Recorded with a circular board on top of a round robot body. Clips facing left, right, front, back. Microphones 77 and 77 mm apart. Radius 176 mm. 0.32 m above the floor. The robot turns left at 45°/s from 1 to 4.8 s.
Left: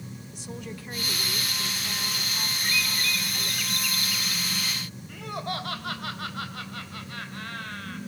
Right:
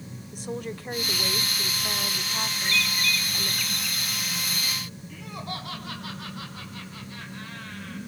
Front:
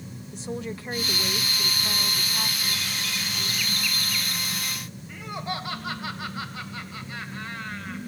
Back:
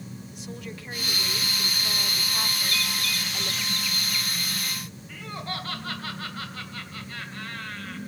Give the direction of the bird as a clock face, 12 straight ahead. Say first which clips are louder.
Right 2 dB, back 2 dB; 6 o'clock.